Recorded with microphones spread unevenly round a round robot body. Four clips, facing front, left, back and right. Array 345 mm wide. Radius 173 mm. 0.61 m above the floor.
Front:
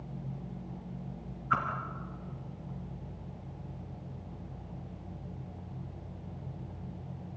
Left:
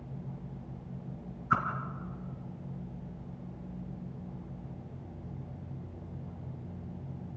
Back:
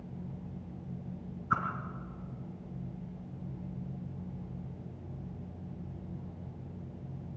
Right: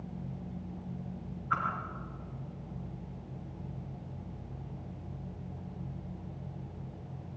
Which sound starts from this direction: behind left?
A whoosh, at 1.5 s.